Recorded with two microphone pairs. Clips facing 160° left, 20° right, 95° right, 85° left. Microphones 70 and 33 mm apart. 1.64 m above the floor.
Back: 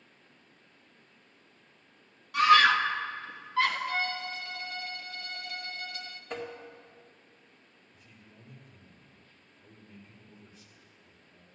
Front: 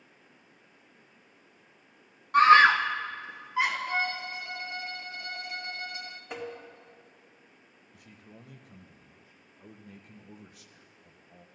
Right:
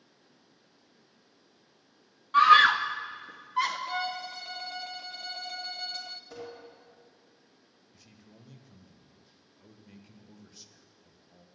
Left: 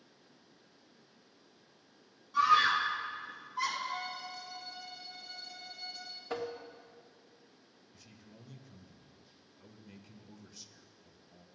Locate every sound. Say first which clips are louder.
2.3 s a scream: front 3 dB, right 7 dB; 65° right, 0.9 m; by 3.8 s 95° right, 1.7 m
3.9 s a violin: front 2 dB, right 6 dB; 85° right, 0.7 m
6.3 s tapping: even, left 9 dB; 65° left, 1.7 m
7.9 s a man speaking: front 6 dB, even; 15° right, 1.2 m